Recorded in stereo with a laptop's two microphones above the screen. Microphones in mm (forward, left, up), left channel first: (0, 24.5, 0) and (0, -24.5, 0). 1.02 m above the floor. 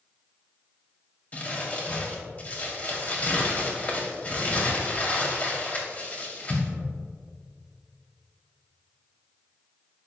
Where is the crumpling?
30° left (ahead or behind), 2.5 m.